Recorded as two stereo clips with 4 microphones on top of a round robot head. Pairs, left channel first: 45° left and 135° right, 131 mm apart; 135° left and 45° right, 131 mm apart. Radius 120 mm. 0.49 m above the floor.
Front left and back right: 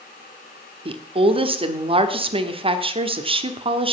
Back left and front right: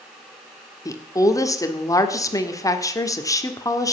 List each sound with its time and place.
0.8 s a woman speaking: 165° right, 1.5 m